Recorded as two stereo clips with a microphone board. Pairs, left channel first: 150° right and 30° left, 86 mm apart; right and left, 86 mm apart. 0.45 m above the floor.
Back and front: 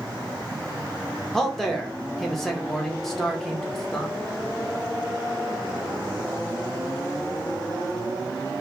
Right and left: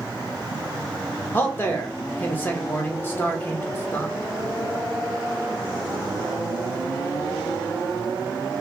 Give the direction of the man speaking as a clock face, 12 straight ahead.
2 o'clock.